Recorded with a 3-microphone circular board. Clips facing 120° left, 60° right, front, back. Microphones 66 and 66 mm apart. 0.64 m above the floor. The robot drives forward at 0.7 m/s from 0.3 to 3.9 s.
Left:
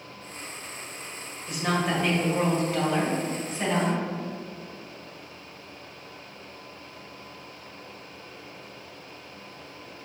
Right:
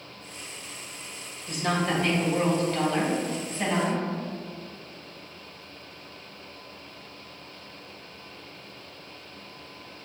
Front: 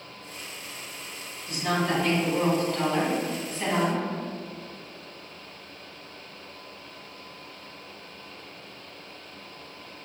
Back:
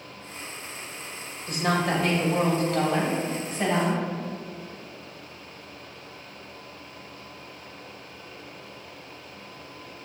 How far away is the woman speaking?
About 2 m.